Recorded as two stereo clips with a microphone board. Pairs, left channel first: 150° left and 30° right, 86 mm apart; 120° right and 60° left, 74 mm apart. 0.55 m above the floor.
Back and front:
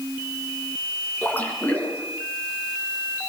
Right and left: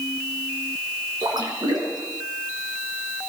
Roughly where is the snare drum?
I don't hear a snare drum.